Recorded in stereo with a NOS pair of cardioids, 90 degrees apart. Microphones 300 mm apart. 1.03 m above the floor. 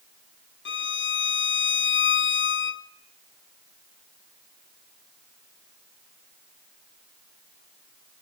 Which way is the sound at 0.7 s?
40° left.